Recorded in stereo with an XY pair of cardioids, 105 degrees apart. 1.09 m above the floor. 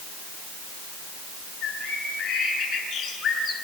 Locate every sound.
1.6 s a bird: 55° left, 7.5 m